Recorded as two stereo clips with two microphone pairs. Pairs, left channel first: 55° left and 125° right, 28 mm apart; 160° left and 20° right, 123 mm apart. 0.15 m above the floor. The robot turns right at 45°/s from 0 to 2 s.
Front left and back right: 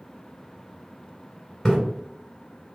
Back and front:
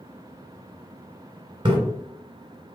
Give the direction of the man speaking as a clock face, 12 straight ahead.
No man speaking in this recording.